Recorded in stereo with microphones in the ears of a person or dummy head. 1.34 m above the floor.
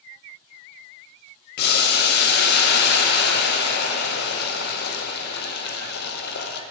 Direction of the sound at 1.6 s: 60° left (ahead or behind).